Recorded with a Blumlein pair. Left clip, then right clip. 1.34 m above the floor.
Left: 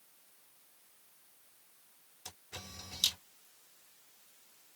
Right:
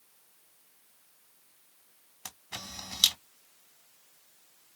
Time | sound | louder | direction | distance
2.2 | a camera shutter | right 6 dB | 50° right | 1.4 m